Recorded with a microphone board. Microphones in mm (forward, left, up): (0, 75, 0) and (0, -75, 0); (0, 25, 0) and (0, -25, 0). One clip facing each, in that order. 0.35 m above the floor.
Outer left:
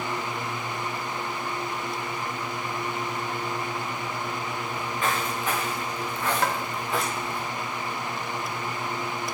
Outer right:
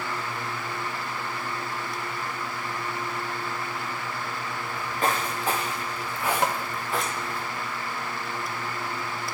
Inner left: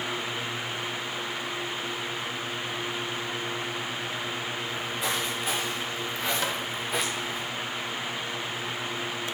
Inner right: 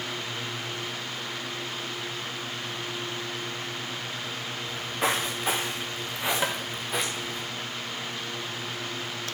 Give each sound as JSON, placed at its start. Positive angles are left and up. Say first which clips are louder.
{"t": 4.7, "sound": "footsteps", "louder": "outer right 3 dB, inner right 5 dB", "side_deg": -45, "distance_m": 2.5}
{"t": 6.4, "sound": "tapping", "louder": "outer right 1 dB, inner right 1 dB", "side_deg": -20, "distance_m": 1.2}